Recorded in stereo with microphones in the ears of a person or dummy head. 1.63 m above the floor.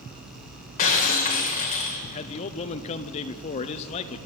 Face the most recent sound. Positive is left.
turn(degrees=40)  # may be behind; listen again after turning